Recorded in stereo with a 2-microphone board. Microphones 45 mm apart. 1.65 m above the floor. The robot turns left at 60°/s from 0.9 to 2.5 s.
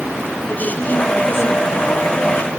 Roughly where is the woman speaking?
Behind left.